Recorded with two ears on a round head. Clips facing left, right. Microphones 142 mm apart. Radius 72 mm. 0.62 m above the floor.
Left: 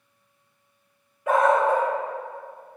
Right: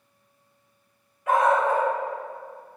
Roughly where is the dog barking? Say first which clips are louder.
Left 1 dB; left.